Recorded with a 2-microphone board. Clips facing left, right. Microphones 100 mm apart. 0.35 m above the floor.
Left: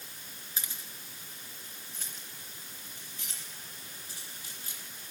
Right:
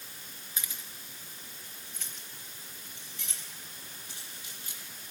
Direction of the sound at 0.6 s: 35° left (ahead or behind).